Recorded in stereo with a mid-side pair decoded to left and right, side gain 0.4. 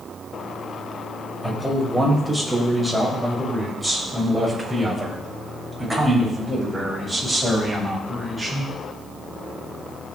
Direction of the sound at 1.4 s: Straight ahead.